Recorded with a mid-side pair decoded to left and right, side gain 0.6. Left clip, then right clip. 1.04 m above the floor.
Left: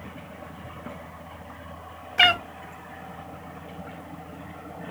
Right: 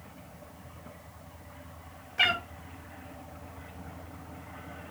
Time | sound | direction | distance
2.2 | a cat meowing | 45° left | 0.5 m